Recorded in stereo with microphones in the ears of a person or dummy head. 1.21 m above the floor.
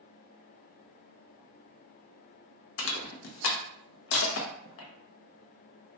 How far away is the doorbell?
No doorbell in this recording.